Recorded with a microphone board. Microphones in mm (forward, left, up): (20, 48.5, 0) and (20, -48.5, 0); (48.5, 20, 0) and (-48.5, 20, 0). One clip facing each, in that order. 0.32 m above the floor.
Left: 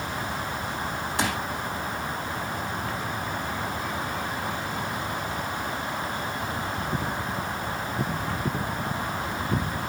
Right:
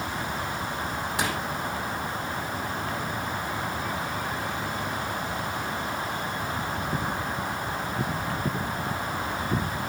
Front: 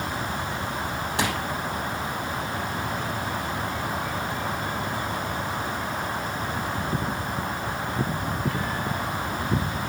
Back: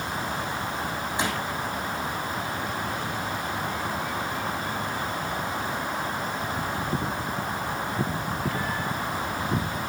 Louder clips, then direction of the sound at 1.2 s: Left 2 dB, front 2 dB; straight ahead.